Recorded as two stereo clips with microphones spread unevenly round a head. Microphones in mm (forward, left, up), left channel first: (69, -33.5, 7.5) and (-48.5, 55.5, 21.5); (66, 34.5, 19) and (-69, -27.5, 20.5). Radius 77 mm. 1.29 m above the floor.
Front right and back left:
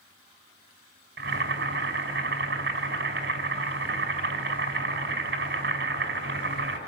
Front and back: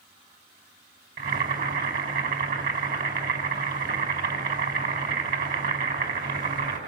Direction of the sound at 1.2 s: 170° left.